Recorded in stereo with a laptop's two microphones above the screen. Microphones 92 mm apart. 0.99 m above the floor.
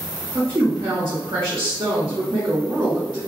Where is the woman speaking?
65° right (ahead or behind), 0.9 m.